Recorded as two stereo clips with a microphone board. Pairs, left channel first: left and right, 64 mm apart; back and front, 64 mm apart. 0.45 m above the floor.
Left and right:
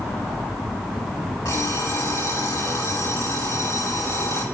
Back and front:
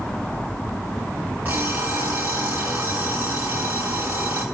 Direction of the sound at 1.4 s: 60° left.